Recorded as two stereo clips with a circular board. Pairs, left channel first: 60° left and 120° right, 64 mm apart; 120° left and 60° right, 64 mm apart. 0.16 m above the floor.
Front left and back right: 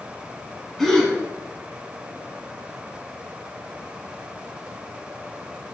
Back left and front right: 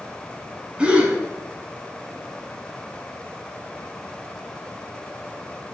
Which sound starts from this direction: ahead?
A gasp, at 0.8 s.